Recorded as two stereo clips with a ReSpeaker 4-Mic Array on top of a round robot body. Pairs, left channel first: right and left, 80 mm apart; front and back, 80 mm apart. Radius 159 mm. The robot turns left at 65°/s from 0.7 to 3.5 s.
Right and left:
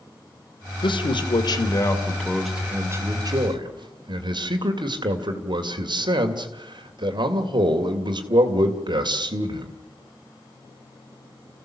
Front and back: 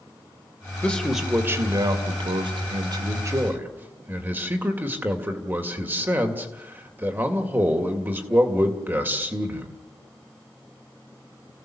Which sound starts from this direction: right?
A man speaking, at 0.8 s.